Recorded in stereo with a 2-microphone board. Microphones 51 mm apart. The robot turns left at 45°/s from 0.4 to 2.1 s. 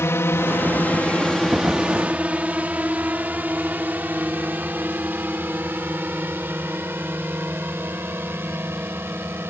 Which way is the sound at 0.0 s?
65° left (ahead or behind).